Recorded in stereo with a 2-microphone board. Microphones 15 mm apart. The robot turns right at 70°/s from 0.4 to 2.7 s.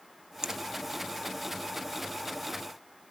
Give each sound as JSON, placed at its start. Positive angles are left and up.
{"t": 0.4, "sound": "a finger snap", "side_deg": -55, "distance_m": 1.3}